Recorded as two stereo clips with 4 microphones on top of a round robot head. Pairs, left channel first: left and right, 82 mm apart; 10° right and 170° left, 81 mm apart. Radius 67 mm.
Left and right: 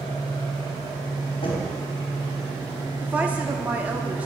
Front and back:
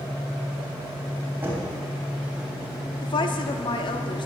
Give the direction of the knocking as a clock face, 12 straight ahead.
9 o'clock.